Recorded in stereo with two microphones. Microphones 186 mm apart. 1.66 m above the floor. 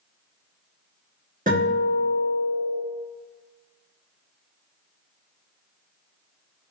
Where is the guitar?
45° right (ahead or behind), 1.9 m.